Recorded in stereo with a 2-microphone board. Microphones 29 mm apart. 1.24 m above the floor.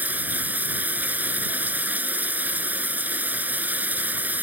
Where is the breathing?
No breathing in this recording.